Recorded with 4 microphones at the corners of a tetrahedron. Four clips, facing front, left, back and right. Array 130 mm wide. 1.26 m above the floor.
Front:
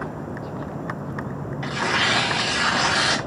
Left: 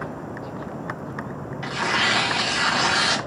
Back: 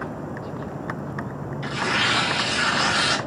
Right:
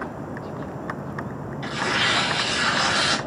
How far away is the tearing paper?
About 0.9 m.